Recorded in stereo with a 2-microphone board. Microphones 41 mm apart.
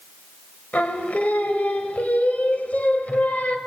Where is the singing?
40° left (ahead or behind), 1.4 m.